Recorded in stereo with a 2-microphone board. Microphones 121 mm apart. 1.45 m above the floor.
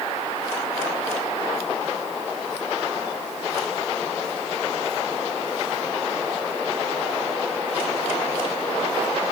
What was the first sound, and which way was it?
Only background noise.